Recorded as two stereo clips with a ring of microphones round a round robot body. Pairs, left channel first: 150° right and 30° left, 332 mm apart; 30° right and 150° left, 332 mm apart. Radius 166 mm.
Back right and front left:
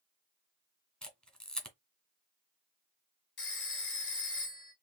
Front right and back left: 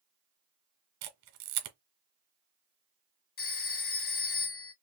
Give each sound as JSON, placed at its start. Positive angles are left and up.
{"t": 1.0, "sound": "a camera shutter", "azimuth_deg": 120, "distance_m": 1.7}
{"t": 3.4, "sound": "a phone ringing", "azimuth_deg": -90, "distance_m": 1.8}